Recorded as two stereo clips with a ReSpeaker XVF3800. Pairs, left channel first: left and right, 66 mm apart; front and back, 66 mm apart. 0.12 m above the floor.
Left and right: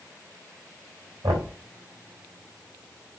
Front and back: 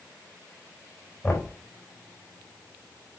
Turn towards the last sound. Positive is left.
turn(degrees=-75)